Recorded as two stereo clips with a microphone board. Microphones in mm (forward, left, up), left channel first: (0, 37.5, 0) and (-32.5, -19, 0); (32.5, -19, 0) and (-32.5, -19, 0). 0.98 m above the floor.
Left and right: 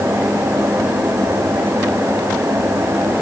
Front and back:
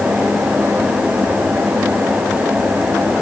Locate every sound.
Only background noise.